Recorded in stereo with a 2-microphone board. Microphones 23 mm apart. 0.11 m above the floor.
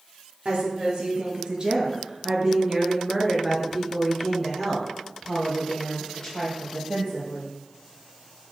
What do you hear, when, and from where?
0.5 s a woman speaking: 45° right (ahead or behind), 2 m; by 7.5 s 25° left (ahead or behind), 3 m